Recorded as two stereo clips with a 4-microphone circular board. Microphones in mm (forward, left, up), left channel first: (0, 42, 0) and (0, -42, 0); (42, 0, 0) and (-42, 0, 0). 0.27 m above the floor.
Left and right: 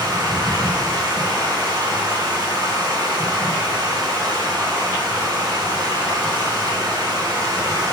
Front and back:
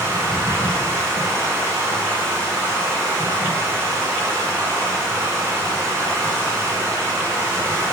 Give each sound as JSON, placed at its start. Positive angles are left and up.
{"t": 0.0, "sound": "running water", "azimuth_deg": -130, "distance_m": 3.0}